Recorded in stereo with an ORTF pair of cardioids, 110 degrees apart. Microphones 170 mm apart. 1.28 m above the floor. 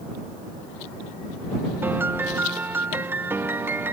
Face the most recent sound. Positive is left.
turn(degrees=-15)